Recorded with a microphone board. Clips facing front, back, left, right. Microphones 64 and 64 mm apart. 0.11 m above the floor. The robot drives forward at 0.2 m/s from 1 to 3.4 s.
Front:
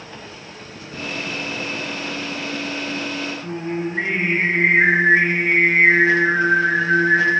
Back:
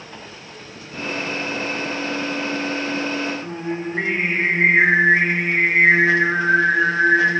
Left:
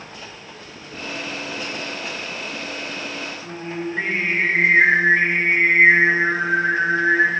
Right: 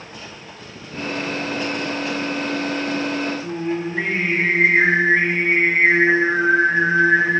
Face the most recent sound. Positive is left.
turn(degrees=160)